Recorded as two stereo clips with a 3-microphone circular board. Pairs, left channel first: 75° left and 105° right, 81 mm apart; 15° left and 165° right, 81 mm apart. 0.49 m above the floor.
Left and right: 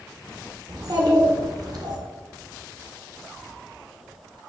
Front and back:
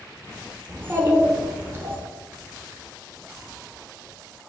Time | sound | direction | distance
0.7 | a child speaking | 115° right | 1.0 m